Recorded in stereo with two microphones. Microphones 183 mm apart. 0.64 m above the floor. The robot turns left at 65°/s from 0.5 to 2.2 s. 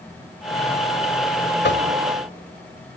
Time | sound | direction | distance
1.6 | knocking | 70° left (ahead or behind) | 2 m